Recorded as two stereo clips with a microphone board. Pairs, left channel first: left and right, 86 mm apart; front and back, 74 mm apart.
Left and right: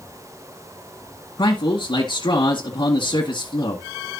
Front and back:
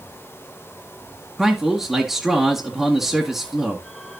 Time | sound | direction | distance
1.4 | a man speaking | 95° left | 2 m